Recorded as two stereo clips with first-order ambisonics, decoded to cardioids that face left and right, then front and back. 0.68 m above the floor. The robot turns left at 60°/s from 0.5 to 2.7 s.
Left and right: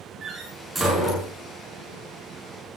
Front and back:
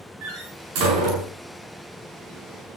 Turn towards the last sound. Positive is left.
turn(degrees=75)